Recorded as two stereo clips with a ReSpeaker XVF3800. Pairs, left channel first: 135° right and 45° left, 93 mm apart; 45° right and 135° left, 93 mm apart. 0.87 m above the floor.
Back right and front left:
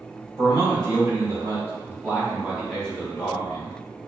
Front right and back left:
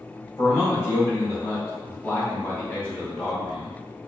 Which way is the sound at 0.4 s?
10° left.